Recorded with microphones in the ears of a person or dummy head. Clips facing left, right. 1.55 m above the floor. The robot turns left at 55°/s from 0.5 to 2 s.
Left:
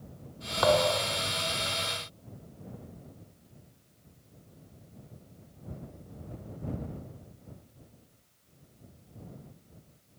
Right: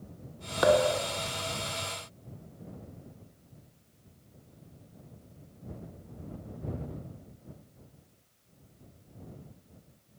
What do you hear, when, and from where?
0.6 s a thud: 150° right; by 1.2 s straight behind